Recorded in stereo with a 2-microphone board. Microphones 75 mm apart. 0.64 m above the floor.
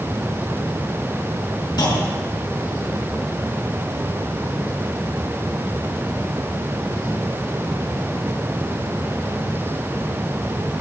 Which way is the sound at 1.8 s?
70° left (ahead or behind).